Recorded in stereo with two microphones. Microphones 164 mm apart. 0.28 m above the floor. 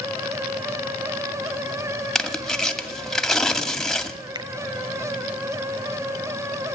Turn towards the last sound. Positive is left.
turn(degrees=-25)  # may be behind; listen again after turning